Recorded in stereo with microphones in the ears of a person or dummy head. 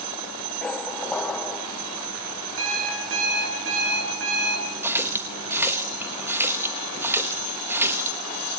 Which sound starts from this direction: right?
An alarm clock, at 2.6 s.